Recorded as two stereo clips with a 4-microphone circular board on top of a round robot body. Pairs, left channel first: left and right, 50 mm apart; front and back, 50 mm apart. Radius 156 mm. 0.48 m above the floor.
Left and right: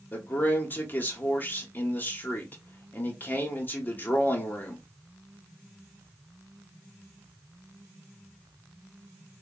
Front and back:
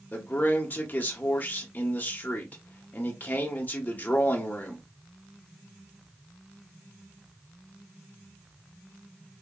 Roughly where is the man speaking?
Ahead left.